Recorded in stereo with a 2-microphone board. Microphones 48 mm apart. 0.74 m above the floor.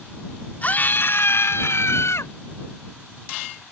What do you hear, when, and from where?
0.6 s a scream: 35° left (ahead or behind); by 2.3 s 75° left (ahead or behind)